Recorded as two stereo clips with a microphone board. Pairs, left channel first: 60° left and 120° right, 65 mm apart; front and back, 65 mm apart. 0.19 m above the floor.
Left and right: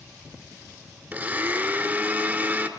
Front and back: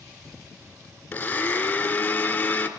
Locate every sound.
1.1 s a blender: 65° right, 2.5 m